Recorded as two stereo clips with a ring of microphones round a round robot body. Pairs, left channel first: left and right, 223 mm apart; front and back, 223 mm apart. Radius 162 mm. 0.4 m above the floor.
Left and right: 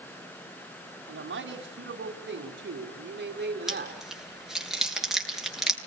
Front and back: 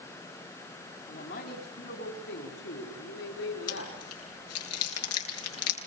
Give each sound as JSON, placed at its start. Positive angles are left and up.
{"t": 1.1, "sound": "a man speaking", "azimuth_deg": -60, "distance_m": 4.5}
{"t": 3.7, "sound": "chewing", "azimuth_deg": 0, "distance_m": 9.0}